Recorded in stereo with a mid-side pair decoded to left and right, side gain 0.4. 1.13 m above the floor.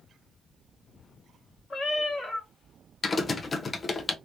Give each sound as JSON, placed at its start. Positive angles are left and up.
{"t": 1.7, "sound": "a cat meowing", "azimuth_deg": 45, "distance_m": 1.3}
{"t": 3.0, "sound": "typing on a keyboard", "azimuth_deg": 40, "distance_m": 0.8}